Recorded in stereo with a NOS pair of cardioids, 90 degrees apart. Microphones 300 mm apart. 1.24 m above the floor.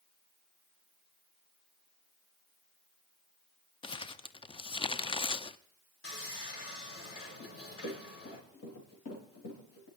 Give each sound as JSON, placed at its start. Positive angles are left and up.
{"t": 3.8, "sound": "crumpling", "azimuth_deg": 15, "distance_m": 0.5}
{"t": 6.0, "sound": "sawing", "azimuth_deg": 50, "distance_m": 4.5}
{"t": 7.4, "sound": "running footsteps", "azimuth_deg": 65, "distance_m": 5.5}